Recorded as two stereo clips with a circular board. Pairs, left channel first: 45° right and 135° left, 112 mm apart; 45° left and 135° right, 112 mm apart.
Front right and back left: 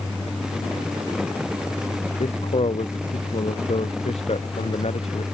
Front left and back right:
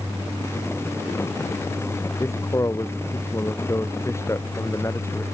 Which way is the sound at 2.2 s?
20° right.